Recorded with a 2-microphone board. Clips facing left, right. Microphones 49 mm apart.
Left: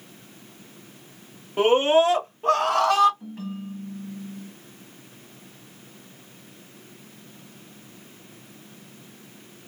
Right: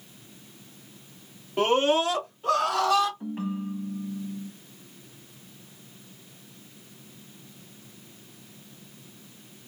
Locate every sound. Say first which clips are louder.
1.6 s a scream: left 4 dB; 10° left (ahead or behind), 1.3 m; by 3.1 s 50° left (ahead or behind), 1.8 m
3.2 s a ringtone: right 3 dB; 30° right (ahead or behind), 0.7 m